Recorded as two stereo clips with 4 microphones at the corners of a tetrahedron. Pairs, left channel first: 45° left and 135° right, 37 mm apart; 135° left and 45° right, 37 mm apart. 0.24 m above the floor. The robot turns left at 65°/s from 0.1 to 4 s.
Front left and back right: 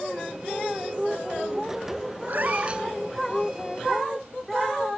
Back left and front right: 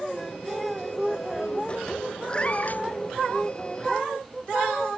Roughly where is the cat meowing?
Behind.